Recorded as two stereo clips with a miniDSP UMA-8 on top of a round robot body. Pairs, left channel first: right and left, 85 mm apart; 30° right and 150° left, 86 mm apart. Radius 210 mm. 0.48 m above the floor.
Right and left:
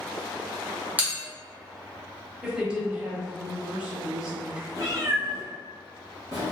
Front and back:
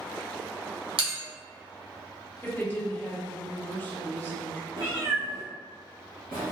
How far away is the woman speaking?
About 1.2 m.